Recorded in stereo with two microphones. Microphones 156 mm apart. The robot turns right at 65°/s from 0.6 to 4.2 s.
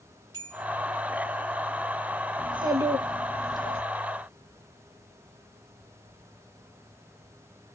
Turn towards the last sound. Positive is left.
turn(degrees=70)